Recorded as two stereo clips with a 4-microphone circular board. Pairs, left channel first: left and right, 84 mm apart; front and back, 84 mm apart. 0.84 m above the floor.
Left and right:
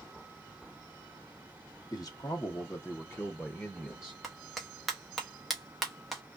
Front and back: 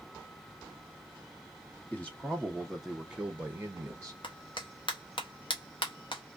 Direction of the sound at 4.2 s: Straight ahead.